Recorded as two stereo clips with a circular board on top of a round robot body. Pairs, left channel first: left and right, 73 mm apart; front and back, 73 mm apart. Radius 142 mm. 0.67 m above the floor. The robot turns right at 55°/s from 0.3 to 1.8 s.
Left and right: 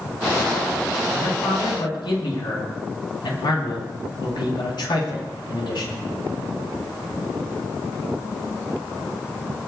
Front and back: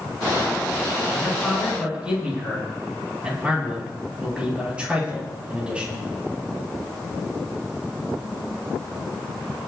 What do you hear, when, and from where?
1.1 s a man speaking: 65° left, 10 m; by 6.0 s 105° left, 10 m